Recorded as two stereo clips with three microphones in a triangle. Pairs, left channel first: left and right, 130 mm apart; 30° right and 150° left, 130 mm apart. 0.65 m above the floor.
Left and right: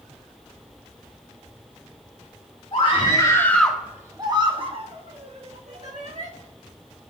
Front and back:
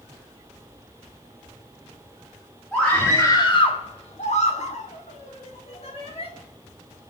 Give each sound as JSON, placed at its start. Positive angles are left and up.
{"t": 2.7, "sound": "a scream", "azimuth_deg": 55, "distance_m": 1.6}